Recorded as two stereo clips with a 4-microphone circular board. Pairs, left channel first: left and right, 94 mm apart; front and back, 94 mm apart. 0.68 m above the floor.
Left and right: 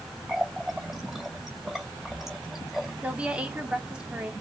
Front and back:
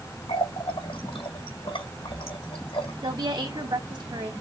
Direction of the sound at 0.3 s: 5° right.